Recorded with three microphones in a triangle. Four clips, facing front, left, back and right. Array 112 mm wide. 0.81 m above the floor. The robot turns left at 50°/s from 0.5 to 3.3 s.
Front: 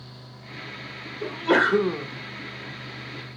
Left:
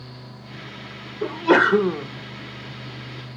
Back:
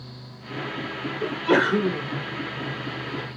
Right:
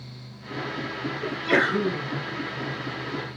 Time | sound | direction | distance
1.2 | a sneeze | 105° left | 2 m